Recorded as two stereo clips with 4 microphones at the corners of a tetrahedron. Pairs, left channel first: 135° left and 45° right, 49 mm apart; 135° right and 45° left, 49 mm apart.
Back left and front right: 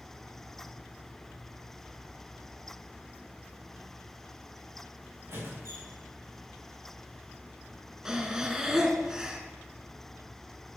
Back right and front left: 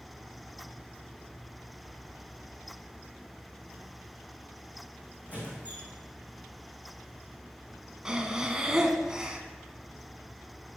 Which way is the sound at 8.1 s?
10° left.